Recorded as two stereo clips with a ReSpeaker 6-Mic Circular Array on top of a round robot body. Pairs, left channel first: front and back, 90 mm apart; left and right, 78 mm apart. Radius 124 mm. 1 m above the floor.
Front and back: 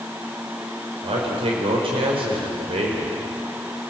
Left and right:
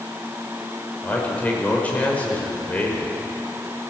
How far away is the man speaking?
About 5.5 m.